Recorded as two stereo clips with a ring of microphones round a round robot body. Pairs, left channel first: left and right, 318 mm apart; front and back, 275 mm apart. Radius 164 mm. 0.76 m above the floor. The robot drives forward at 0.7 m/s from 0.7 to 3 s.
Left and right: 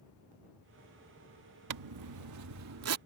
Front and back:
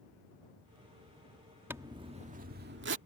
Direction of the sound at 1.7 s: 100° right.